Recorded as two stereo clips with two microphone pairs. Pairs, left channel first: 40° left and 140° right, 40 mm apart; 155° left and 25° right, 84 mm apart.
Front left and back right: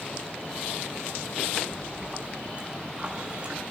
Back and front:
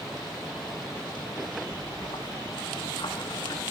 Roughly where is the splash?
Behind.